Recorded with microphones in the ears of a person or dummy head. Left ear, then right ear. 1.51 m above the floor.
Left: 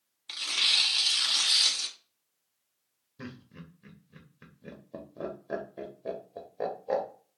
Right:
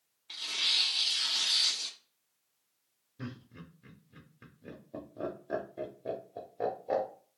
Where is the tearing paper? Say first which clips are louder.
Left 4 dB; 65° left (ahead or behind), 0.9 m.